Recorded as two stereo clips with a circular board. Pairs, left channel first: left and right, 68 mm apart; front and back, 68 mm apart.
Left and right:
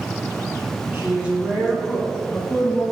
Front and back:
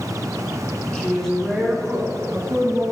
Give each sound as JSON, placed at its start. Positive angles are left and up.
{"t": 0.9, "sound": "a woman speaking", "azimuth_deg": -65, "distance_m": 1.8}